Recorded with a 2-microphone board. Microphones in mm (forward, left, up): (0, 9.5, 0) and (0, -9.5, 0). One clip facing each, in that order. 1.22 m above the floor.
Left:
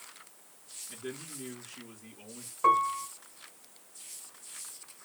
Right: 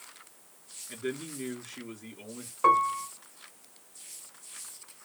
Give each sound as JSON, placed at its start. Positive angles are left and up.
{"t": 0.9, "sound": "a man speaking", "side_deg": -40, "distance_m": 4.0}
{"t": 2.6, "sound": "a piano", "side_deg": -20, "distance_m": 0.7}